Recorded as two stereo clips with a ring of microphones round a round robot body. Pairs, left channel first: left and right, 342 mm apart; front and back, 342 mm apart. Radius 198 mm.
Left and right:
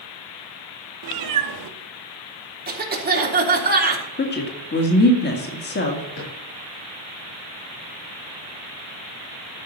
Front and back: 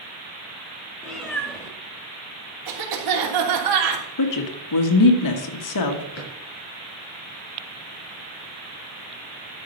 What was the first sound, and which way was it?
A cat meowing, 90° right.